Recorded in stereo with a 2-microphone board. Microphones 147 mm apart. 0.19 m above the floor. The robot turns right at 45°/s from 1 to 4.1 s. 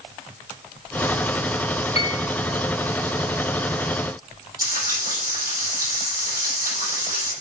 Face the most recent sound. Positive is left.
turn(degrees=-80)